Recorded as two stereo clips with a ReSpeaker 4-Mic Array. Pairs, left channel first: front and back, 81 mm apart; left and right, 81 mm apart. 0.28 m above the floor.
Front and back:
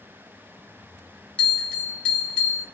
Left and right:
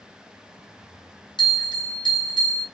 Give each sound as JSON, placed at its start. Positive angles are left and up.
{"t": 1.4, "sound": "a bell", "azimuth_deg": 80, "distance_m": 1.2}